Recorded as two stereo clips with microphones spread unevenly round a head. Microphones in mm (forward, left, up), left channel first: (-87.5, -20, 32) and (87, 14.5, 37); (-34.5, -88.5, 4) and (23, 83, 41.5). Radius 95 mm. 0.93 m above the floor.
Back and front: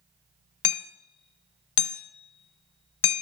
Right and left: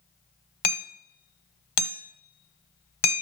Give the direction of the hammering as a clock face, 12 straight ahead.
5 o'clock.